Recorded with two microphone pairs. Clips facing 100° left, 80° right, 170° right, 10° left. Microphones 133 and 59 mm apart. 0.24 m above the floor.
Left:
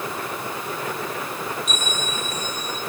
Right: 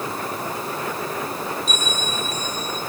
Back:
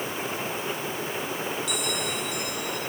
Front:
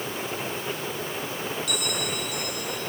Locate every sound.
1.7 s a bell: 25° right, 5 m